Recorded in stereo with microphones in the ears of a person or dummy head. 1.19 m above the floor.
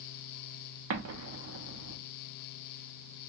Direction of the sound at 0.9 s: 75° right (ahead or behind).